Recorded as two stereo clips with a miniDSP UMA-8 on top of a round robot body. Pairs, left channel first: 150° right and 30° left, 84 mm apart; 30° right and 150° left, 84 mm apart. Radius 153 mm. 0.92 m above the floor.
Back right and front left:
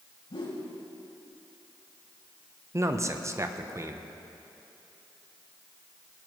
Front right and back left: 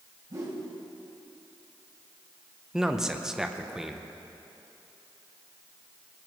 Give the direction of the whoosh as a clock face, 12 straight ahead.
5 o'clock.